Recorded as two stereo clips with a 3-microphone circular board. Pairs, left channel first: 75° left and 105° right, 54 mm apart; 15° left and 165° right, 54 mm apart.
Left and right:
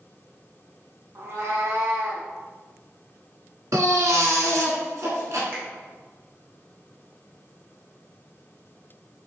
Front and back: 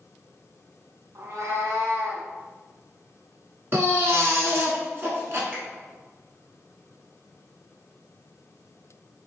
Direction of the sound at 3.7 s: 125° right.